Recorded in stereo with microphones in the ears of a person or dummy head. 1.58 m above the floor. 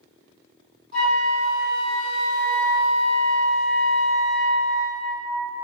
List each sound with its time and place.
0.9 s a flute: 40° right (ahead or behind), 1.6 m